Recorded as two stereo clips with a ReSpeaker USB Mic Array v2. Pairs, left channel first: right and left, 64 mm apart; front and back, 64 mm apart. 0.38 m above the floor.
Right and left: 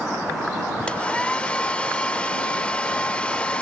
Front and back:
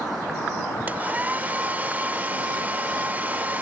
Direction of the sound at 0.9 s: 145° right.